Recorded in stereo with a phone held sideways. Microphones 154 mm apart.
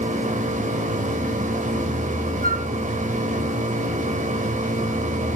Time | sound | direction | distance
0.0 | a machine running | 55° right (ahead or behind) | 2.5 m
2.4 | a flute | 65° right (ahead or behind) | 3 m